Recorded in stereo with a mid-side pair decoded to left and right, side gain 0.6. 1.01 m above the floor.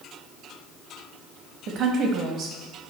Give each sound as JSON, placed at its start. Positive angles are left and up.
{"t": 1.7, "sound": "a woman speaking", "azimuth_deg": -60, "distance_m": 1.0}